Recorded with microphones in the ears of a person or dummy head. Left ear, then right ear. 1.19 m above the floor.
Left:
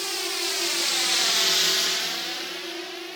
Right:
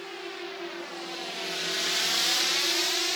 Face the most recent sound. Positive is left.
turn(degrees=-45)  # may be behind; listen again after turning